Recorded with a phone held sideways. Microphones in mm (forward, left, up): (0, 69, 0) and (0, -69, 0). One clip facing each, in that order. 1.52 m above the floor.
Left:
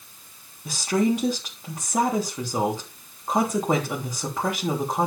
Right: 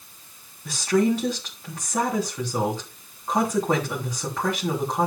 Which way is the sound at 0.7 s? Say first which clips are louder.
Right 1 dB; 15° left (ahead or behind).